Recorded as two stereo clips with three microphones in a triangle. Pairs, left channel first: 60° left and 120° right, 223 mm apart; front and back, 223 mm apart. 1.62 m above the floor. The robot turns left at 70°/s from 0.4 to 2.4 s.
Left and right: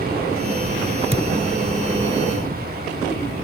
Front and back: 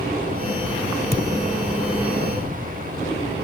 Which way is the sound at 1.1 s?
45° left.